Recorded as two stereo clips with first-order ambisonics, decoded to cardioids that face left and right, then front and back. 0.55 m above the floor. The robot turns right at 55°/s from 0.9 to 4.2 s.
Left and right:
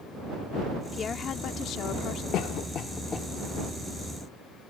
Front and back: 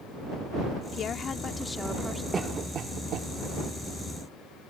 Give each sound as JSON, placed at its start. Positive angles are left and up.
{"t": 0.9, "sound": "a woman speaking", "azimuth_deg": 35}
{"t": 2.3, "sound": "a cough", "azimuth_deg": 110}